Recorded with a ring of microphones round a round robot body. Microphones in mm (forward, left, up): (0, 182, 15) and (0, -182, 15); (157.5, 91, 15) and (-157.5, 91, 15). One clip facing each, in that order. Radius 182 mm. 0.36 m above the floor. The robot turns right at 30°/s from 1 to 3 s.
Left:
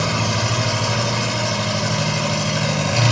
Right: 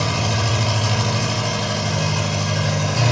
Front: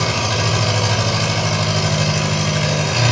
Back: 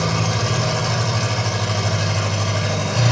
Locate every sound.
0.0 s an engine running: 20° right, 2.0 m; by 3.1 s 40° left, 2.0 m